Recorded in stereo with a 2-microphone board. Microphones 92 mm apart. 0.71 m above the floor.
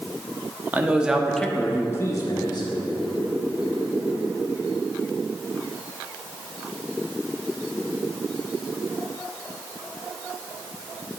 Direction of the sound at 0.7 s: 20° right (ahead or behind).